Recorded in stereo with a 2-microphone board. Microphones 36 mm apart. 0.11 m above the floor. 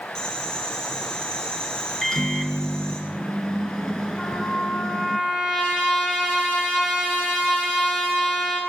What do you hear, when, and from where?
0.1 s boiling: 25° left (ahead or behind), 2.5 m
2.0 s a microwave: 15° left (ahead or behind), 1.0 m
4.2 s a trumpet: 40° left (ahead or behind), 4.5 m